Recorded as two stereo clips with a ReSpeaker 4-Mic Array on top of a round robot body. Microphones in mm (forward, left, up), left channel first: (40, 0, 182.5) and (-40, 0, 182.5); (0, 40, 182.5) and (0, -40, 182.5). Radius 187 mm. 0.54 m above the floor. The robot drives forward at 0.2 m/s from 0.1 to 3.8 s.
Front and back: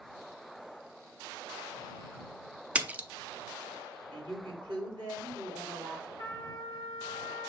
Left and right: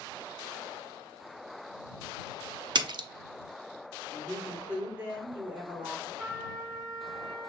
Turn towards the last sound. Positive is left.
turn(degrees=180)